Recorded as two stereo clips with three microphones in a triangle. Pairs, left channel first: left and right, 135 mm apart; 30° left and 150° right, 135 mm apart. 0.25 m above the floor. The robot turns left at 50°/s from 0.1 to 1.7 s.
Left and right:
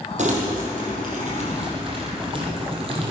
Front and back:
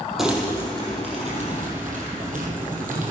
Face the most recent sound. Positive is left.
turn(degrees=-135)